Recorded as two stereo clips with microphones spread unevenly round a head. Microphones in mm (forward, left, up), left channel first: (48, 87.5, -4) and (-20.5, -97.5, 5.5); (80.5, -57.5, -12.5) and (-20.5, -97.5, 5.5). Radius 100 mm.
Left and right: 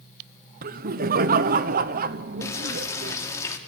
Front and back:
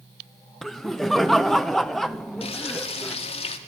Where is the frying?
5° right, 2 m.